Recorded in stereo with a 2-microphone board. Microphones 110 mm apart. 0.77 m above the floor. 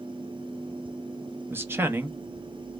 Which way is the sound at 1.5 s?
20° right (ahead or behind).